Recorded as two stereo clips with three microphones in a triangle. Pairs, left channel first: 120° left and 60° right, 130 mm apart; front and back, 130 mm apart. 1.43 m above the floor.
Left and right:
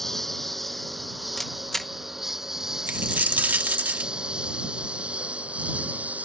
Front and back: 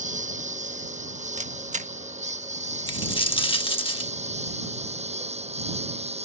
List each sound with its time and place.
0.0 s a lawn mower: 150° right; by 6.2 s 140° right
1.4 s a camera shutter: 155° right
2.9 s a dropped coin: 10° left